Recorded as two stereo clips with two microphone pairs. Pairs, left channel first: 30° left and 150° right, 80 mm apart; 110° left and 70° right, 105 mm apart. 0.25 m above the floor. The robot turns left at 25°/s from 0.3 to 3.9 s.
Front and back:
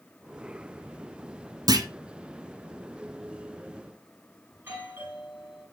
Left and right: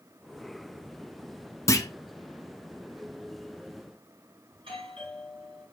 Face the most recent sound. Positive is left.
turn(degrees=-90)